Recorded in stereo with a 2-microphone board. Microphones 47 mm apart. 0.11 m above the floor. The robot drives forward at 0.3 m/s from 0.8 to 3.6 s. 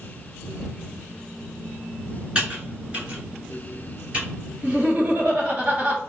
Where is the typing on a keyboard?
20° right (ahead or behind), 1.9 m; by 4.2 s 25° right (ahead or behind), 1.8 m.